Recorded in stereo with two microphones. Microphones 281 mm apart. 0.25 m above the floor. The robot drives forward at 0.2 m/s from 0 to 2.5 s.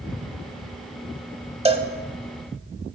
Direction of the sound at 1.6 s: 20° right (ahead or behind).